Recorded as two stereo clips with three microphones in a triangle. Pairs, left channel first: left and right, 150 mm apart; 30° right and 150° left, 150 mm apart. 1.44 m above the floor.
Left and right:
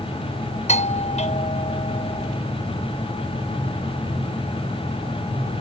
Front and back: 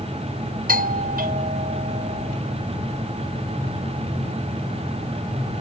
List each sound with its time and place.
0.7 s a doorbell: 130° left